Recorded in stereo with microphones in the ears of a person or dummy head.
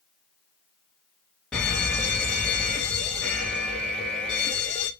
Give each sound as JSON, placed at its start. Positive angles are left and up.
{"t": 1.5, "sound": "an alarm", "side_deg": 10, "distance_m": 1.8}